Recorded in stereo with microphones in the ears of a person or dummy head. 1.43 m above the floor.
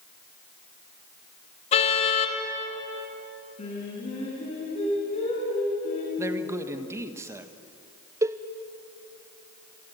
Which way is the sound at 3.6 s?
35° left (ahead or behind).